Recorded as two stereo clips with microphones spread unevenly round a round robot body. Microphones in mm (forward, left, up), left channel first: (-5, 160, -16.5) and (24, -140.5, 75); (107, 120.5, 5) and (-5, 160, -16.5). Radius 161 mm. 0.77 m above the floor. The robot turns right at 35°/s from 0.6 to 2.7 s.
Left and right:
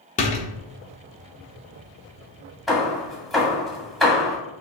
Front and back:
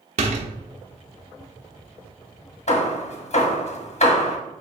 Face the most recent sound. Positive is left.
turn(degrees=15)